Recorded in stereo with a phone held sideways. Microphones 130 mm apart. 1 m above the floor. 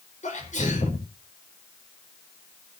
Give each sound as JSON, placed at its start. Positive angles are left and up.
{"t": 0.2, "sound": "a sneeze", "side_deg": 70, "distance_m": 4.5}